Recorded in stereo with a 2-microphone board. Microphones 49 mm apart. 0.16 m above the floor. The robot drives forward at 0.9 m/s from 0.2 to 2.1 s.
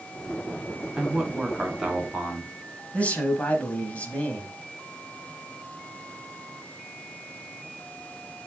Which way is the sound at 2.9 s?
30° left (ahead or behind).